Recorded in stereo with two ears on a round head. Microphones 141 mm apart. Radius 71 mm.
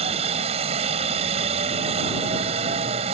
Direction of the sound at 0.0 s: 40° right (ahead or behind).